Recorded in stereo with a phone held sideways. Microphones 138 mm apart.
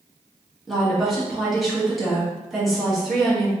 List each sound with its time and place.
0.7 s a woman speaking: centre (ahead or behind), 1.7 m